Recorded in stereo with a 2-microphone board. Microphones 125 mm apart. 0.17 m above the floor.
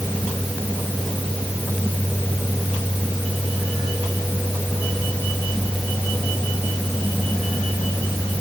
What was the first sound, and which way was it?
Only background noise.